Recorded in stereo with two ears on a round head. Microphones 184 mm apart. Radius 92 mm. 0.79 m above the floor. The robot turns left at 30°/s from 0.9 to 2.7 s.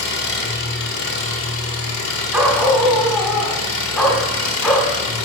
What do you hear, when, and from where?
0.0 s an engine running: 125° left, 1.1 m; by 5.3 s 70° left, 1.1 m
2.3 s a dog barking: 5° right (ahead or behind), 1.5 m; by 4.9 s 5° left (ahead or behind), 1.5 m